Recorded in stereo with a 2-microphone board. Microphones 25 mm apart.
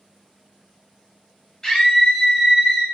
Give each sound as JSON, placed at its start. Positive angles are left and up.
{"t": 1.6, "sound": "a scream", "side_deg": 25, "distance_m": 1.0}